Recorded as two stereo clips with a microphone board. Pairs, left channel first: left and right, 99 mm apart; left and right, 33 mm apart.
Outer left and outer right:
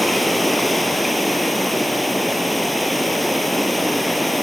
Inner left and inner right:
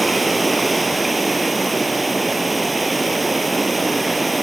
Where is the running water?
Centre (ahead or behind), 1.9 m.